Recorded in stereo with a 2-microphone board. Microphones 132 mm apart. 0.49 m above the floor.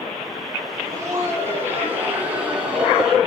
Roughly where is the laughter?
Right.